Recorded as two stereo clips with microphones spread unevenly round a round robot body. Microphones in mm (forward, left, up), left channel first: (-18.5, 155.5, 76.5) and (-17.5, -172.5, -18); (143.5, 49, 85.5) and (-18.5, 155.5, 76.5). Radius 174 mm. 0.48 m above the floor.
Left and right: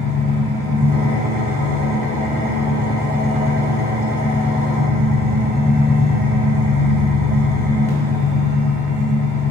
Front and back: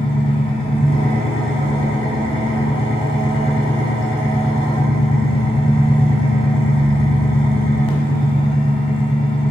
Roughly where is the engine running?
Ahead left.